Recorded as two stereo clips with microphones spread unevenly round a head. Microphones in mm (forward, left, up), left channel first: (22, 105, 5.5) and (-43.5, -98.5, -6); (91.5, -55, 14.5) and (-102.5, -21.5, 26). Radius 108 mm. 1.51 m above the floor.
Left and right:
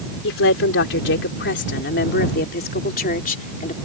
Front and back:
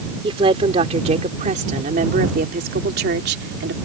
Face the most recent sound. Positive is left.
turn(degrees=130)